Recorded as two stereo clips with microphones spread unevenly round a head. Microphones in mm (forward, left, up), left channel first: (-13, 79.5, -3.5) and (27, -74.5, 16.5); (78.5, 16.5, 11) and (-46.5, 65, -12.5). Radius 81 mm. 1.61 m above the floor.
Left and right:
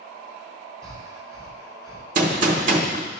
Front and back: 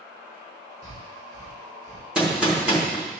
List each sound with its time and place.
0.8 s breathing: 145° right, 2.5 m
2.1 s a gunshot: 115° right, 1.1 m